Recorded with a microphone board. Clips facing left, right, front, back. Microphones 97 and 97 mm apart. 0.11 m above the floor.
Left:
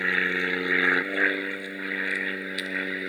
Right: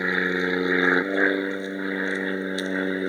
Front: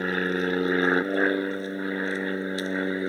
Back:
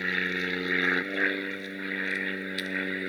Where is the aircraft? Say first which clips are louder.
Right 3 dB, front 6 dB; 30° right; by 3.1 s 45° right.